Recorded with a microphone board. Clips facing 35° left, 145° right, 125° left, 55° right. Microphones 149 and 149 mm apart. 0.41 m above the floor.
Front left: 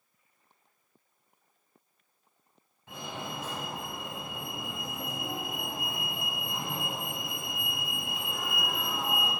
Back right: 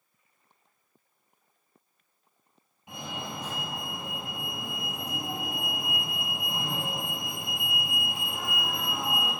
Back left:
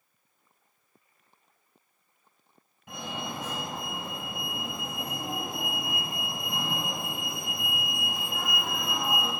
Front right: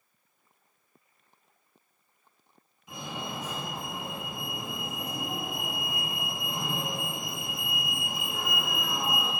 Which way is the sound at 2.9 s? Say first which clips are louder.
Back right 1 dB, back left 1 dB; 140° left.